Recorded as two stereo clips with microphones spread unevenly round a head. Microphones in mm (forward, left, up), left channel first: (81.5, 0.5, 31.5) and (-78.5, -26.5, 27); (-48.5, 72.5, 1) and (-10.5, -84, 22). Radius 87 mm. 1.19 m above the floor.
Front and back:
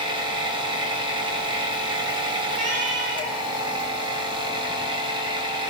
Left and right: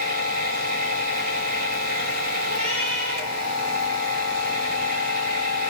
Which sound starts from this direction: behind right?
A cat meowing, at 2.5 s.